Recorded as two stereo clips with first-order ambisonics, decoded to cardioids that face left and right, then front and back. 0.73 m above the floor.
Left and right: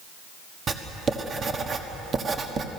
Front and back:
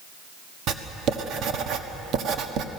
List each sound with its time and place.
0.7 s writing: 150° right, 1.3 m